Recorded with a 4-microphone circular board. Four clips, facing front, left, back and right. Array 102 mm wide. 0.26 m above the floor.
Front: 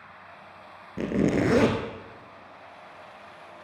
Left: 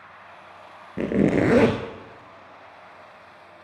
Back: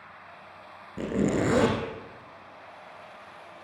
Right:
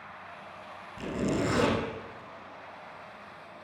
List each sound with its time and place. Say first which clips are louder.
1.0 s a zipper: left 10 dB, front 2 dB; 85° left, 1.4 m